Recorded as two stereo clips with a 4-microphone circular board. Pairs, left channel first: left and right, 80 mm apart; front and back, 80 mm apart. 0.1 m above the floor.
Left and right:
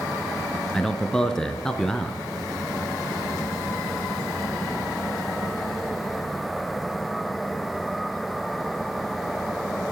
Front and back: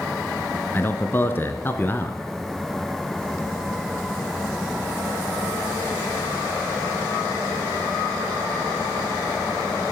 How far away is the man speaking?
About 1.2 m.